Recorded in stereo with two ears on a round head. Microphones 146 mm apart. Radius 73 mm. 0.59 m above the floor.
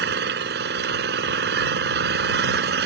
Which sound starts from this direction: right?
An engine running, at 0.0 s.